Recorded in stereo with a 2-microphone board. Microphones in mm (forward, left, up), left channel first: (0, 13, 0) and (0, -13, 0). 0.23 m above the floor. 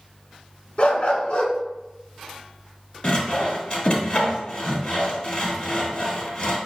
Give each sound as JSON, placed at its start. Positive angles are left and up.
{"t": 0.8, "sound": "a dog barking", "side_deg": 45, "distance_m": 0.7}
{"t": 3.0, "sound": "sawing", "side_deg": 35, "distance_m": 1.3}